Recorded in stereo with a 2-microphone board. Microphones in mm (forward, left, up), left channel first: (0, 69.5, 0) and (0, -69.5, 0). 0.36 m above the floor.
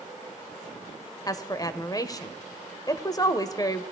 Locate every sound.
1.3 s a woman speaking: 25° left (ahead or behind), 1.3 m